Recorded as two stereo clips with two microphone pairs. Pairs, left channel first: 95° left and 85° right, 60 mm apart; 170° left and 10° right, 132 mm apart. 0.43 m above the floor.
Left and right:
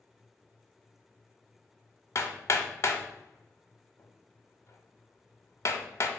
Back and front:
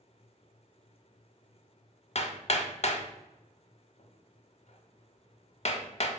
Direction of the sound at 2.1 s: 135° left.